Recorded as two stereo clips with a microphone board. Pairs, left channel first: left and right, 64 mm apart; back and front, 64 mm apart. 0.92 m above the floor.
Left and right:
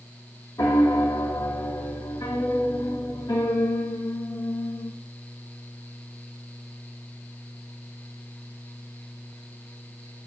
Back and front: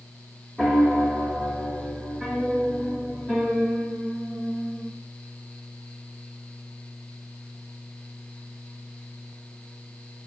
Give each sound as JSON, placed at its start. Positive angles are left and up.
{"t": 0.6, "sound": "a piano", "azimuth_deg": 90, "distance_m": 0.9}